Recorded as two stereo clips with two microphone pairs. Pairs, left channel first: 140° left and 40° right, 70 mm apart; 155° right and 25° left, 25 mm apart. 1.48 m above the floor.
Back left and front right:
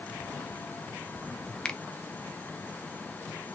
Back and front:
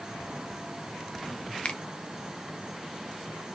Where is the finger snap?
145° right, 0.8 m.